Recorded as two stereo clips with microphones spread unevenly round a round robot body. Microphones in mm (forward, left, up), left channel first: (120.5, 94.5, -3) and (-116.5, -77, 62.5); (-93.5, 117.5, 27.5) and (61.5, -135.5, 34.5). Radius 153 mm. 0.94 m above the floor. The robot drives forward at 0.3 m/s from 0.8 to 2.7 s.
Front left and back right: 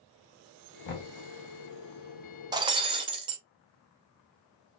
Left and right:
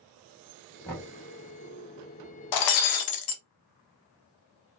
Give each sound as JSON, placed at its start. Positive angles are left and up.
{"t": 0.8, "sound": "knocking", "azimuth_deg": 40, "distance_m": 1.3}
{"t": 2.5, "sound": "breaking glass", "azimuth_deg": 140, "distance_m": 0.6}